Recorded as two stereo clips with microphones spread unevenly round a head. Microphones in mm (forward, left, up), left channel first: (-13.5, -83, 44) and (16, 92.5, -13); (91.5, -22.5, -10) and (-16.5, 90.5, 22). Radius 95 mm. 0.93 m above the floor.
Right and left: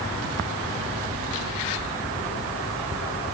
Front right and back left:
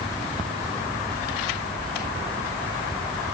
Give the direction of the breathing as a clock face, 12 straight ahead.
No breathing in this recording.